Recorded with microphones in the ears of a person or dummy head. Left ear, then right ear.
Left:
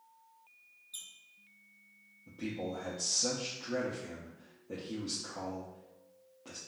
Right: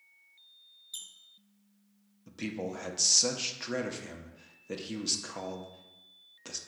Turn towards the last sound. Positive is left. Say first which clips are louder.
# right 2 dB
turn(degrees=-60)  # may be behind; listen again after turning